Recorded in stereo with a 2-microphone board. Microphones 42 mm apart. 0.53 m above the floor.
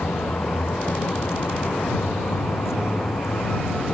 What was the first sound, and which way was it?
A vehicle, 90° left.